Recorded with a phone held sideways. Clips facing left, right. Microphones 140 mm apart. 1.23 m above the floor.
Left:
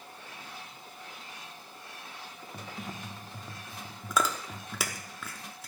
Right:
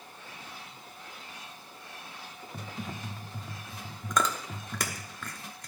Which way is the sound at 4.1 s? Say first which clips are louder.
Even; 5° left (ahead or behind).